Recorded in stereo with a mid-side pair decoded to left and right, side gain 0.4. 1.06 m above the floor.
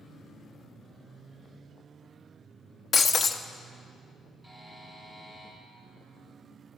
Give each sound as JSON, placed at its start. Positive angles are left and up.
{"t": 2.9, "sound": "breaking glass", "azimuth_deg": 45, "distance_m": 0.8}
{"t": 4.4, "sound": "a buzzer", "azimuth_deg": 10, "distance_m": 6.0}